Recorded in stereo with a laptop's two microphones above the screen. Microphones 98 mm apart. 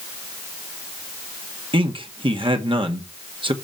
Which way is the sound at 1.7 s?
65° right (ahead or behind).